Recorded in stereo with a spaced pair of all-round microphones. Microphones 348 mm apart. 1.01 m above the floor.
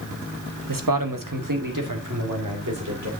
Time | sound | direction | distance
0.7 | a man speaking | 80° right | 0.9 m